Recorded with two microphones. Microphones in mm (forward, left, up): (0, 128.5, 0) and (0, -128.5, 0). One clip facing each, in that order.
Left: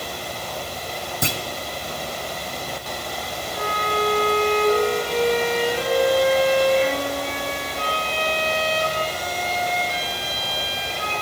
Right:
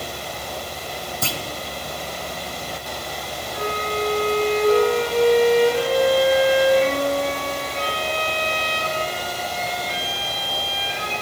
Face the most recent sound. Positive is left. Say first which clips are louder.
# right 1 dB
turn(degrees=-65)  # may be behind; listen again after turning